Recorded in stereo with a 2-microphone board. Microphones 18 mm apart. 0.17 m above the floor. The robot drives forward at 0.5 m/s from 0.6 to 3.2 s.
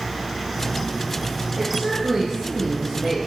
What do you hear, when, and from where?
1.6 s a woman speaking: 15° right (ahead or behind), 1.8 m; by 3.2 s 10° right (ahead or behind), 2.5 m